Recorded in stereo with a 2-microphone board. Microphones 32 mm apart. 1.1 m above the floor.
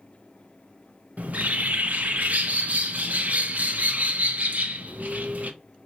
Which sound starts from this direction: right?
A bird, at 1.2 s.